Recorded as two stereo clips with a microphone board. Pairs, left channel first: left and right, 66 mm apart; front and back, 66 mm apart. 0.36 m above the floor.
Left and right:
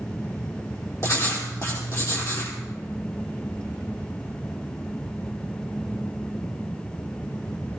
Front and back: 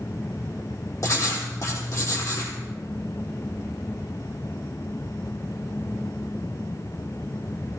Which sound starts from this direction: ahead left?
Writing, at 1.0 s.